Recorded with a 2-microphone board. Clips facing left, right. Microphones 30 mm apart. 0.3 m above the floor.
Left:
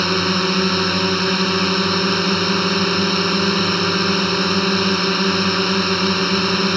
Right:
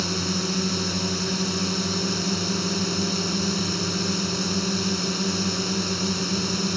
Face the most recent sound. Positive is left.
turn(degrees=45)  # may be behind; listen again after turning